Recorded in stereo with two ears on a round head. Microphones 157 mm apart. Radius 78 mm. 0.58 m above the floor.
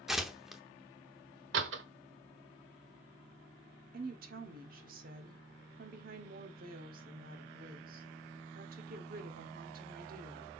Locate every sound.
0.1 s tearing paper: centre (ahead or behind), 0.8 m
1.5 s a door slam: 80° right, 1.2 m
3.9 s a woman speaking: 55° right (ahead or behind), 1.4 m